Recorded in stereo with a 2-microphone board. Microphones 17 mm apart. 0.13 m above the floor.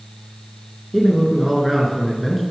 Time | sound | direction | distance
0.9 | a man speaking | centre (ahead or behind) | 1.6 m